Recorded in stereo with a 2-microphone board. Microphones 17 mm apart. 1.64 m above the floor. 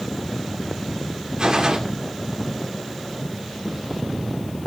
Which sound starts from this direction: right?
A gunshot, at 1.4 s.